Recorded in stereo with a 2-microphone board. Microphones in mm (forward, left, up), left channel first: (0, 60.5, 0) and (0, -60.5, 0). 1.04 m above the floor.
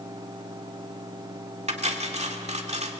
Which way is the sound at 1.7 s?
65° right (ahead or behind).